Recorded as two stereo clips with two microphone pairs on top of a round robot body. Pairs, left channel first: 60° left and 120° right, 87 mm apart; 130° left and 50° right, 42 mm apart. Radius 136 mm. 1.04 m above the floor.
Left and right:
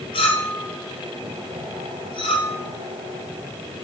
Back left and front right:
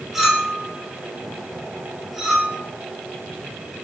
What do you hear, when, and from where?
0.1 s a clink: 35° left, 1.4 m